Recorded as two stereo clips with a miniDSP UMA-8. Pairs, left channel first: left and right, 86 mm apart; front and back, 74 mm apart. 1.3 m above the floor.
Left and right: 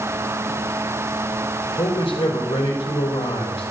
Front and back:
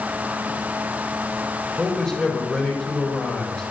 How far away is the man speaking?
About 3.5 m.